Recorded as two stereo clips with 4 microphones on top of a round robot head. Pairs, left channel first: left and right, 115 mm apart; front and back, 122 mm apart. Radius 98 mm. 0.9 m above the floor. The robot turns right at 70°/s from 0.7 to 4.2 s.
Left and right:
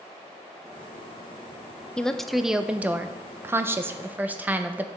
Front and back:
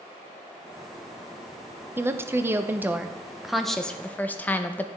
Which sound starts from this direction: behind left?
A woman speaking, at 2.0 s.